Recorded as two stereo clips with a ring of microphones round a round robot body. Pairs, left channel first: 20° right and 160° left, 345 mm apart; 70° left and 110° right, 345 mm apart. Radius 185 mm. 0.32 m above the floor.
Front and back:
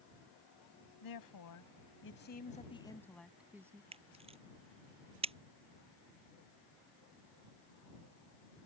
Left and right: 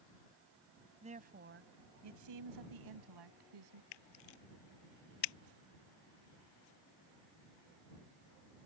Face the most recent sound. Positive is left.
turn(degrees=85)